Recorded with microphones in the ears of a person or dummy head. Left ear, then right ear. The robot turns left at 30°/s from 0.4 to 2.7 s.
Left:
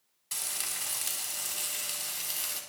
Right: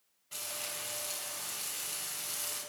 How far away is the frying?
About 4 m.